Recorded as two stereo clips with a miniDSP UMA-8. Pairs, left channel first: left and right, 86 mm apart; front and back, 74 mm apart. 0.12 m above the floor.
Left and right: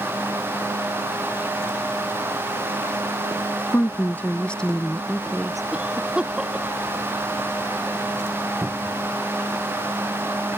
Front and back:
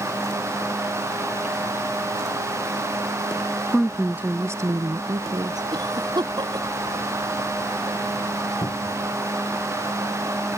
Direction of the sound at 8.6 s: 25° right.